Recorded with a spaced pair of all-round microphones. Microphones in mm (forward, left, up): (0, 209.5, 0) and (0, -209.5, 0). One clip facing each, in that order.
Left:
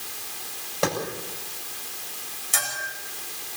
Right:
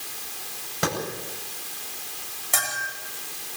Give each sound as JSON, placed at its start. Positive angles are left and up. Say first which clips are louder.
{"t": 0.8, "sound": "a clap", "louder": "left 2 dB", "side_deg": -30, "distance_m": 9.0}
{"t": 2.5, "sound": "a bell", "louder": "right 3 dB", "side_deg": -70, "distance_m": 9.5}